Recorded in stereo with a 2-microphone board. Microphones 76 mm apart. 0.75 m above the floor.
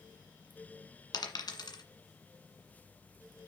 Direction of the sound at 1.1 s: 65° left (ahead or behind).